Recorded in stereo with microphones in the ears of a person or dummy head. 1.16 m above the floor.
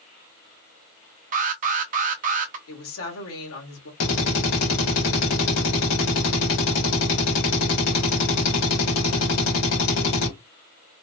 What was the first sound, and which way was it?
An alarm, 45° right (ahead or behind).